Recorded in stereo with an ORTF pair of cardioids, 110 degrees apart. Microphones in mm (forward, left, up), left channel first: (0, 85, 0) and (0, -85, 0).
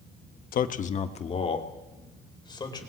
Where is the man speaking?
60° left, 1.1 m; by 2.9 s 25° left, 4 m.